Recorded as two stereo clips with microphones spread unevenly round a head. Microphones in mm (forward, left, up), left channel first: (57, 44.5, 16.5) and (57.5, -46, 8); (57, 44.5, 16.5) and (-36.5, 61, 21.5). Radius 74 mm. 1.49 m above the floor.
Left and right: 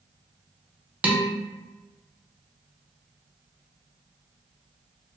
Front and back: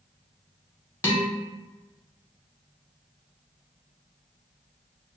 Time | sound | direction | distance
1.0 | dishes clattering | 30° right | 0.6 m